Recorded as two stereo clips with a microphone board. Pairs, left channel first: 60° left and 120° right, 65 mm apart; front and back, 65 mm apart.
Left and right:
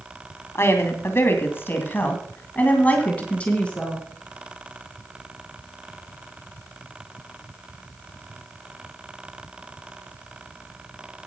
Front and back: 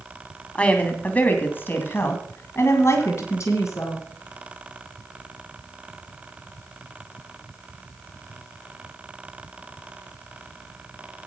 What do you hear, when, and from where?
0.6 s a woman speaking: 60° left, 2 m; by 4.0 s 10° right, 3 m